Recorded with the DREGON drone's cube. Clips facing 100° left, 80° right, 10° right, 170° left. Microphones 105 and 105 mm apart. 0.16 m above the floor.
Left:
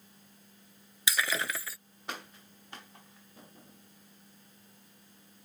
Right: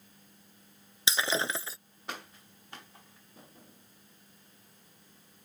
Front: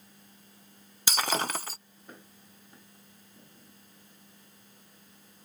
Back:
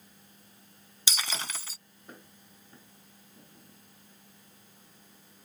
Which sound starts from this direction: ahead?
Breaking glass, at 1.1 s.